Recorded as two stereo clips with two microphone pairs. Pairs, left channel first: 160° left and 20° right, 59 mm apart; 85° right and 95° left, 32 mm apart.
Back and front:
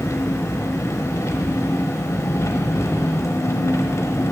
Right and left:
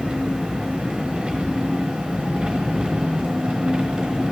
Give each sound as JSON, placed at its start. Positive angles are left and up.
{"t": 0.0, "sound": "an engine running", "azimuth_deg": 145, "distance_m": 1.0}